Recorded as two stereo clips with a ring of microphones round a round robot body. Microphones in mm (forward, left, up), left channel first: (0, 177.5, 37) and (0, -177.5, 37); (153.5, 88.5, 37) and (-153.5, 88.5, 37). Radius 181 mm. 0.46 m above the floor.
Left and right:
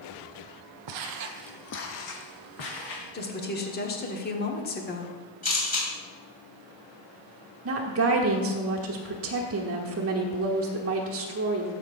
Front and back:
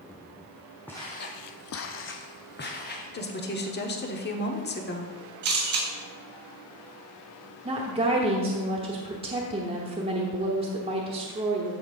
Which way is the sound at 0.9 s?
85° right.